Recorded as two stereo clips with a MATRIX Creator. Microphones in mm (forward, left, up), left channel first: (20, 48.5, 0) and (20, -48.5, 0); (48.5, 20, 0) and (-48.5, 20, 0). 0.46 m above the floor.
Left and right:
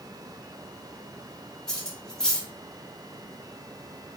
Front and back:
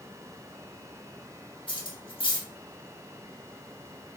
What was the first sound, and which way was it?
Cutlery clinking, 5° left.